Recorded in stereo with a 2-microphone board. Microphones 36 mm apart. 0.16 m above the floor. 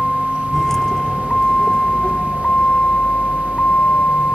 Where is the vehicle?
5° left (ahead or behind); by 4.3 s 45° left (ahead or behind).